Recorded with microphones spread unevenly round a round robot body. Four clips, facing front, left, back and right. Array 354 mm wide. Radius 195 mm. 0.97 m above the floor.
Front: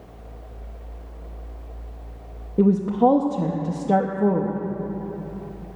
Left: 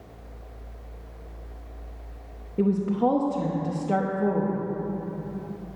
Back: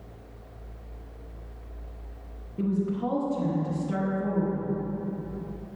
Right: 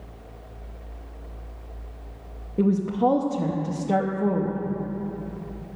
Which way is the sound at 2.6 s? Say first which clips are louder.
Right 1 dB, front 10 dB; 5° right.